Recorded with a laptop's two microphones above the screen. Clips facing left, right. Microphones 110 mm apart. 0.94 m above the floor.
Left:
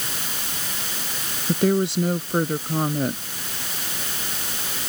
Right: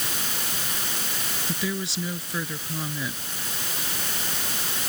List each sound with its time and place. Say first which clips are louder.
1.5 s a woman speaking: left 11 dB; 55° left (ahead or behind)